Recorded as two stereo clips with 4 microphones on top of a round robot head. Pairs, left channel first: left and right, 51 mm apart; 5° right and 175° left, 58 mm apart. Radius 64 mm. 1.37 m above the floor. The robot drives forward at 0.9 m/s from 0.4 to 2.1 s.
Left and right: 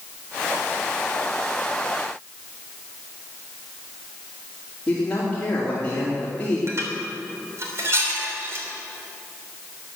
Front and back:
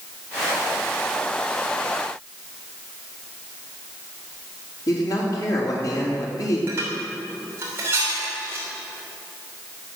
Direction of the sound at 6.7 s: 125° right.